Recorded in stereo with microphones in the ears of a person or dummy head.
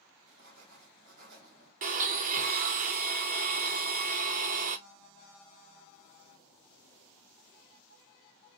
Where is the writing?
40° right (ahead or behind), 1.5 m.